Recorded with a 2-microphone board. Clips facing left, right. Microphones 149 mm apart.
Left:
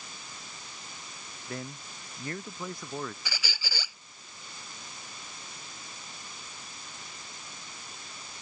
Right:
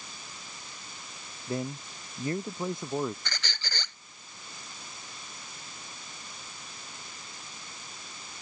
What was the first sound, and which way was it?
A man speaking, 25° right (ahead or behind).